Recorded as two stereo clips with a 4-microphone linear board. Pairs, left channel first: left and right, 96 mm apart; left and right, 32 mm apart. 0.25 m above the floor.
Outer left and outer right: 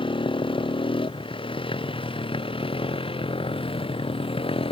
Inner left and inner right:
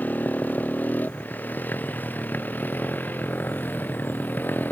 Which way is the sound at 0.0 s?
65° left (ahead or behind).